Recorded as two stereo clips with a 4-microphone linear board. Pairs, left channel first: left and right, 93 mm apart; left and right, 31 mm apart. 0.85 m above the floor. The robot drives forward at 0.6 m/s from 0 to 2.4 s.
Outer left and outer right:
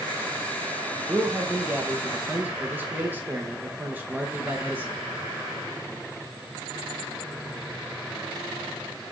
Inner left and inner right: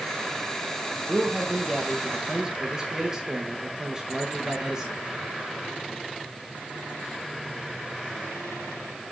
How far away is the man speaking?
About 1.1 m.